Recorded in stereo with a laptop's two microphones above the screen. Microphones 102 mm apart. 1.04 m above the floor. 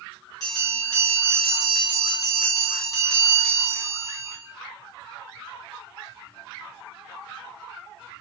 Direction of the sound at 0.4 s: 40° left (ahead or behind).